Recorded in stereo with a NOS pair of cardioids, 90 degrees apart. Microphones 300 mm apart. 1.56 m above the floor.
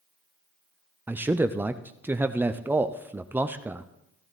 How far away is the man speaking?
About 0.5 m.